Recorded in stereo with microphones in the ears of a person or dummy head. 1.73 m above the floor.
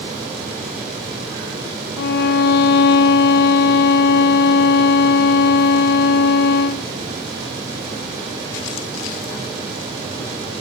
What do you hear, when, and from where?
2.0 s a violin: 60° left (ahead or behind), 0.6 m